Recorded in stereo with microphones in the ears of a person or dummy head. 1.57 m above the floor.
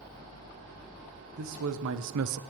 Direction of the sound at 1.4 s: 70° right (ahead or behind).